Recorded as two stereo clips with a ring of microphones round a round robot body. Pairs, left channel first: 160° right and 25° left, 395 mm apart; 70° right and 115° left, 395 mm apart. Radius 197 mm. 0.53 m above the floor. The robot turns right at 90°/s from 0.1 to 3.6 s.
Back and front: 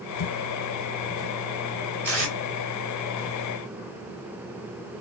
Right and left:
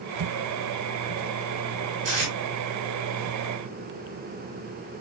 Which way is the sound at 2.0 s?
105° left.